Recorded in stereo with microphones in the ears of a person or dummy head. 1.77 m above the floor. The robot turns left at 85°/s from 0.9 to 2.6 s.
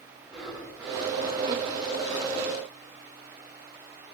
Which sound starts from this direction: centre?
Breathing, at 0.2 s.